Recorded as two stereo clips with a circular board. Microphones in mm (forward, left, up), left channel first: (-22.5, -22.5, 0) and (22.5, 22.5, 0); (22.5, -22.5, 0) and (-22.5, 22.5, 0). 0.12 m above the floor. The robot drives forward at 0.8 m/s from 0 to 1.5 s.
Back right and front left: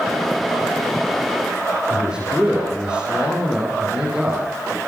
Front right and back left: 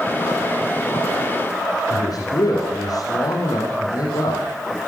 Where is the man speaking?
30° right, 6.5 m.